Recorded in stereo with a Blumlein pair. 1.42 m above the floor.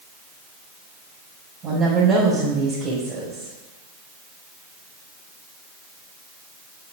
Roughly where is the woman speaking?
Ahead right.